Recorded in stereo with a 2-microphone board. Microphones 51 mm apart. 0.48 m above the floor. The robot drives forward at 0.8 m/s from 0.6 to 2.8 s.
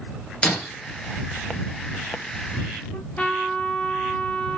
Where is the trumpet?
25° left (ahead or behind), 2.0 m.